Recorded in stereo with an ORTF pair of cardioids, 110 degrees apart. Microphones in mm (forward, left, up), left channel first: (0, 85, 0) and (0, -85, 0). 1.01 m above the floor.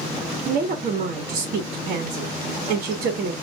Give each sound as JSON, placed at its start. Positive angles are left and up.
{"t": 0.5, "sound": "a woman speaking", "azimuth_deg": -55, "distance_m": 1.8}